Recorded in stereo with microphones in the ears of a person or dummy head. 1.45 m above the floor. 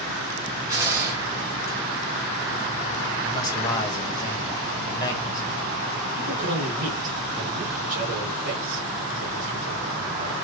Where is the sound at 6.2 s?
55° right (ahead or behind), 1.4 m.